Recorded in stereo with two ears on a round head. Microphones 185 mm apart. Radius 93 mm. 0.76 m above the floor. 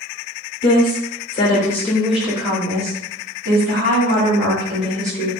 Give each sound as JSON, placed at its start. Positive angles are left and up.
{"t": 0.6, "sound": "a woman speaking", "side_deg": 40, "distance_m": 1.2}